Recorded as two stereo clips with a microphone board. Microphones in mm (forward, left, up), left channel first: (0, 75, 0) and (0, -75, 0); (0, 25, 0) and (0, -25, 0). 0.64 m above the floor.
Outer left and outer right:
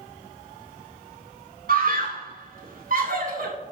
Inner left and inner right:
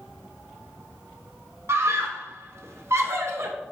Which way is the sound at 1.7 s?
70° right (ahead or behind).